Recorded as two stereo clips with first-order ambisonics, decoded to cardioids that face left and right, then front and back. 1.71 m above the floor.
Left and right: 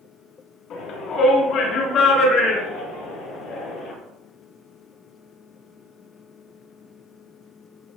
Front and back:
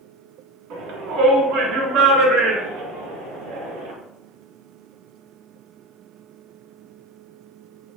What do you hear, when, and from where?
0.7 s a shout: 145° left, 5 m; by 3.9 s 150° left, 7.5 m